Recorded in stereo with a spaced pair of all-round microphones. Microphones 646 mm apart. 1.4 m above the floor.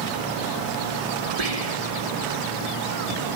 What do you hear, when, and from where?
1.4 s whispering: 65° right (ahead or behind), 1.4 m